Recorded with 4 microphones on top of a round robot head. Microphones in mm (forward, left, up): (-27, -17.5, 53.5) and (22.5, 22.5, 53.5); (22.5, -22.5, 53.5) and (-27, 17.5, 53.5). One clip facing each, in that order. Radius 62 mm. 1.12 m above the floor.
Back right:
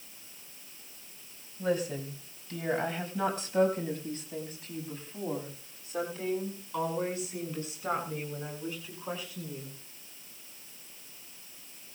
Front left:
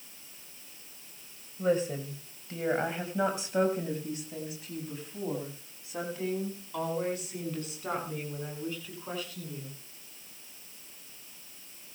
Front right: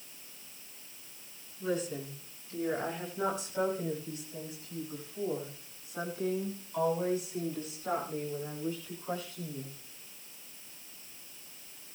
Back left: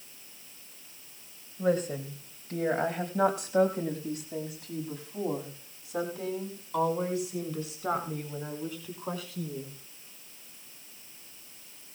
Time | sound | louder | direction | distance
1.6 | a woman speaking | front left 2 dB, back left 6 dB | 100° left | 5.5 m